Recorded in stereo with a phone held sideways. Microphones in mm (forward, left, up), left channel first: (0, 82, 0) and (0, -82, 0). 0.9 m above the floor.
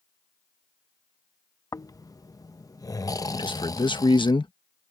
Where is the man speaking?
30° left (ahead or behind).